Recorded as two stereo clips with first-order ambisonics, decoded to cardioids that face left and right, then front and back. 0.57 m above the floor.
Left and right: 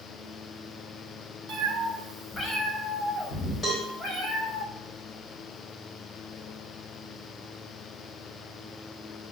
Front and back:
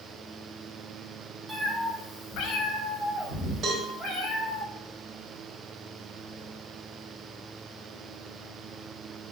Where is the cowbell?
145° left, 1.1 m.